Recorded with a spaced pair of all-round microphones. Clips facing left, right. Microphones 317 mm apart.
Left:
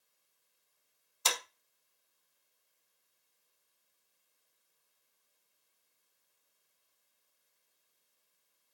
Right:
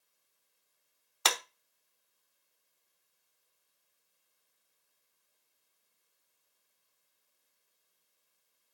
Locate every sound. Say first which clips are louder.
1.2 s a clap: right 3 dB; 80° right, 1.0 m